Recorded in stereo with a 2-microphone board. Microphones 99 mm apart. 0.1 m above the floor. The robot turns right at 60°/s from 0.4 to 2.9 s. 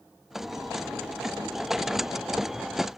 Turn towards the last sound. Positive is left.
No sound to turn to.